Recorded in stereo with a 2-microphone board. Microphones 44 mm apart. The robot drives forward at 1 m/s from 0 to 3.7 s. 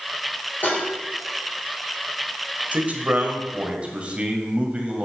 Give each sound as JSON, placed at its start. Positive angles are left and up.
{"t": 0.6, "sound": "dishes clattering", "side_deg": 45, "distance_m": 4.5}
{"t": 2.7, "sound": "a man speaking", "side_deg": -35, "distance_m": 1.4}